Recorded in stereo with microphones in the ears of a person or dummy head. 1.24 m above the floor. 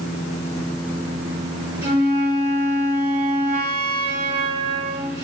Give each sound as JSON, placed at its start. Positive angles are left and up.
{"t": 1.8, "sound": "a flute", "side_deg": -60, "distance_m": 2.0}